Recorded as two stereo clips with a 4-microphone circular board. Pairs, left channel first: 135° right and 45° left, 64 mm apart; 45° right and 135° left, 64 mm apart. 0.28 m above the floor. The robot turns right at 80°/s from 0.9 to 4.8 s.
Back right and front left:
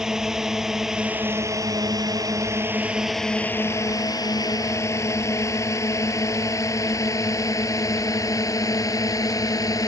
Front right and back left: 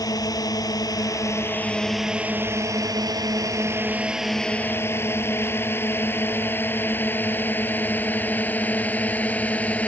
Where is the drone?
35° right; by 9.9 s 110° right.